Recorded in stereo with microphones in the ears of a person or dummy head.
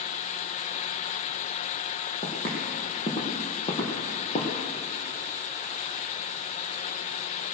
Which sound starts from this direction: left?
Footsteps, at 2.2 s.